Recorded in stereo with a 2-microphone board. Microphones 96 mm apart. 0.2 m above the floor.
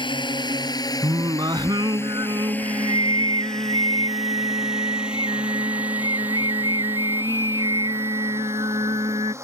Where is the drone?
50° left (ahead or behind); by 9.4 s 25° right (ahead or behind).